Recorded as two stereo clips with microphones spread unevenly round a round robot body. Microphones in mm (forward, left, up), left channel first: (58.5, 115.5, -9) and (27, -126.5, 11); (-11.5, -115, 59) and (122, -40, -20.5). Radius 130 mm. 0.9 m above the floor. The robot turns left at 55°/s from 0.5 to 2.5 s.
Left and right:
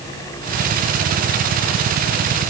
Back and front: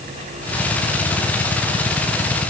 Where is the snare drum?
I don't hear a snare drum.